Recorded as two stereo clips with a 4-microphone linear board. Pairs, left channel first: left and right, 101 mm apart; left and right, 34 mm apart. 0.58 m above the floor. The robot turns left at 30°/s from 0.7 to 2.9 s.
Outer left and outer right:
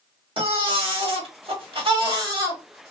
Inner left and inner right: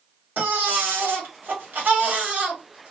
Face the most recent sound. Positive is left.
turn(degrees=-145)